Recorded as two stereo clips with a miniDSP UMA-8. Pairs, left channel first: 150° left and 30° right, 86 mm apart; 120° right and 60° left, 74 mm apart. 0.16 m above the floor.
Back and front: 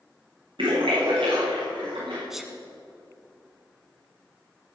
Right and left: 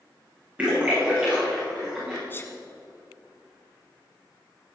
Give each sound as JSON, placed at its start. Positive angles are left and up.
{"t": 0.6, "sound": "a splash", "azimuth_deg": -10, "distance_m": 6.5}
{"t": 2.3, "sound": "a sneeze", "azimuth_deg": -110, "distance_m": 1.5}